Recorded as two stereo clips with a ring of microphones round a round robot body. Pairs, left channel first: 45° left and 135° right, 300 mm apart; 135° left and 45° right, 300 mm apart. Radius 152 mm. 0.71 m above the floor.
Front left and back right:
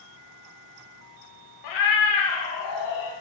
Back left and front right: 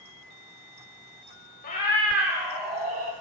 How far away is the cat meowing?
About 1.1 m.